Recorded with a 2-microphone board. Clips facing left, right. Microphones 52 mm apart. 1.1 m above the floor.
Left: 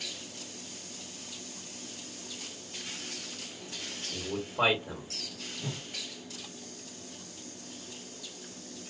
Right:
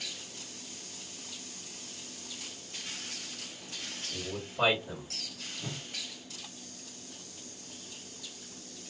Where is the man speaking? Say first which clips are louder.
Left 4 dB; 40° left (ahead or behind), 2 m.